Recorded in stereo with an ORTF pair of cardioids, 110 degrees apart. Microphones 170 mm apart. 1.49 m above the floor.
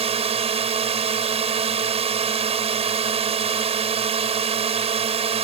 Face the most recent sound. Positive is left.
turn(degrees=-35)